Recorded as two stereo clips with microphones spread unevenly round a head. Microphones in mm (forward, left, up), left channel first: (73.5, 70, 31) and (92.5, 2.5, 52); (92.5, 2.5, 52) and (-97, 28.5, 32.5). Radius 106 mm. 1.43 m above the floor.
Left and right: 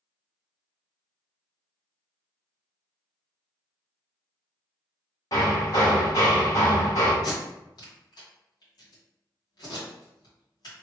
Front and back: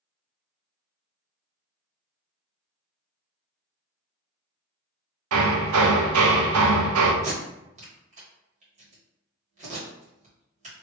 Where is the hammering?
175° left, 0.6 m.